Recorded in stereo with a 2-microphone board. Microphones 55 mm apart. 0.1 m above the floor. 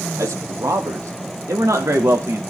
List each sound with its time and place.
0.2 s a man speaking: 70° right (ahead or behind), 3 m